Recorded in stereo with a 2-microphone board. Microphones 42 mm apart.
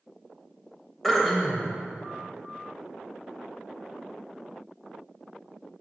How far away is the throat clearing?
About 1.0 m.